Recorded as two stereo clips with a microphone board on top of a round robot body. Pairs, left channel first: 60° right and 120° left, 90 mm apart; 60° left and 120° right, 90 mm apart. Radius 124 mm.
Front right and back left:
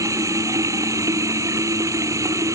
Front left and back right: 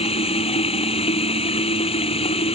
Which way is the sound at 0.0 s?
65° left.